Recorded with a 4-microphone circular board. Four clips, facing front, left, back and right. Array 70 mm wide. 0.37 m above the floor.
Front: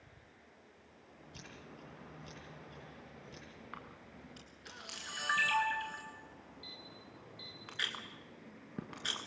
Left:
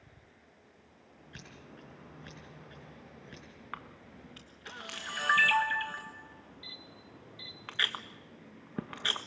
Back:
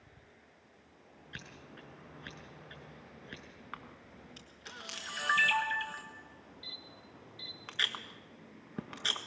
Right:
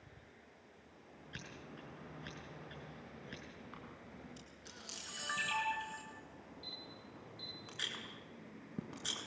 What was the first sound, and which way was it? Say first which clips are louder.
Scissors: even, back 4 dB; 170° right.